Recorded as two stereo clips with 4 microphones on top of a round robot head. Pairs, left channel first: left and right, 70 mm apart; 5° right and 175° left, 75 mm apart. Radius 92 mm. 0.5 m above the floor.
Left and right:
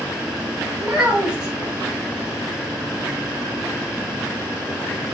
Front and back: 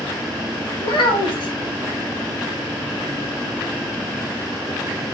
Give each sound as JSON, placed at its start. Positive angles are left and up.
{"t": 0.8, "sound": "a child speaking", "azimuth_deg": -10, "distance_m": 3.0}